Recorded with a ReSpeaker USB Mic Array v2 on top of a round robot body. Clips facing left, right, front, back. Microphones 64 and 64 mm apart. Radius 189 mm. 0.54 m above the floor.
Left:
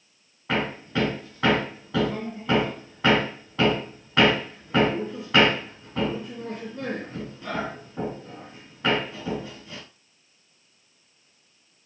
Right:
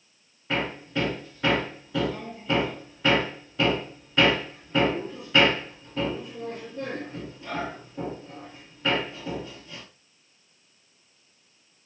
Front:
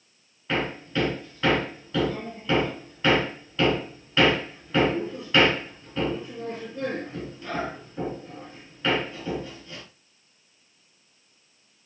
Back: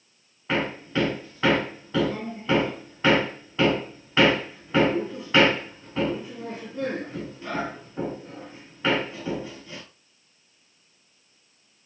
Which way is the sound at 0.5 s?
115° left.